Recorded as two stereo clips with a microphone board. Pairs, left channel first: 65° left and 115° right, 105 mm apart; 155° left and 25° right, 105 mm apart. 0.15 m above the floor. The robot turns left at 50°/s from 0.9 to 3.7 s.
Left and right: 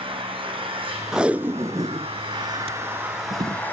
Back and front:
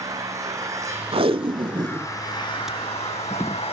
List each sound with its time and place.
0.0 s an engine running: 80° right, 4 m; by 3.7 s 140° left, 4 m
1.1 s tape being pulled: 30° right, 0.5 m; by 3.6 s 155° right, 0.5 m